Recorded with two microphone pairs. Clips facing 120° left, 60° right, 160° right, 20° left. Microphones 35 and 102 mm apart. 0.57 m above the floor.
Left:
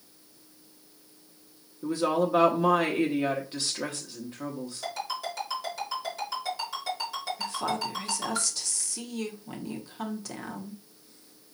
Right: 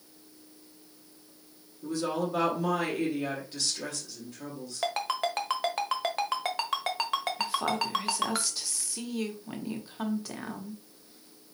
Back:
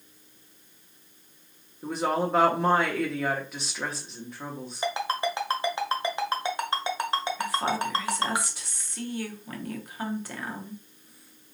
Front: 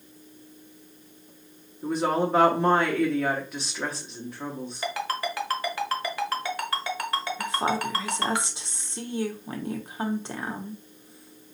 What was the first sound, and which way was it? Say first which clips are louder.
A woman speaking: left 5 dB, front 2 dB; 110° left.